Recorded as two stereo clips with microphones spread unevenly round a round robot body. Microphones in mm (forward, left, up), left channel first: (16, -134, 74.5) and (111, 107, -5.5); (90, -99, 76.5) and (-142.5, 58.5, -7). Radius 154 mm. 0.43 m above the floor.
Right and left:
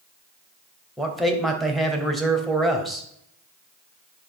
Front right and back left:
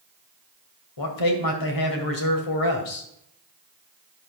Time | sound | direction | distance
1.0 | a man speaking | 15° right | 2.5 m